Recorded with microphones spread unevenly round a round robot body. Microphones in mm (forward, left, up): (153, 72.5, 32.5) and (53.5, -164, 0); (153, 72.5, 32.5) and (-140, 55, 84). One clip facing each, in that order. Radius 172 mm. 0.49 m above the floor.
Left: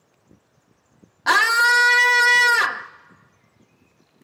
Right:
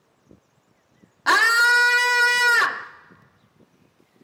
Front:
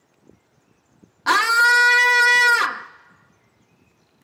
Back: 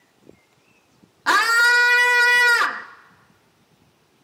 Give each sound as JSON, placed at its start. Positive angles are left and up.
{"t": 1.3, "sound": "a scream", "azimuth_deg": -45, "distance_m": 0.7}